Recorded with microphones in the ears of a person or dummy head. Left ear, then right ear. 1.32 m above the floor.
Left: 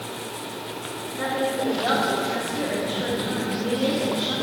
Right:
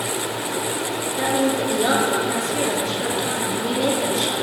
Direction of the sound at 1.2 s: 85° right.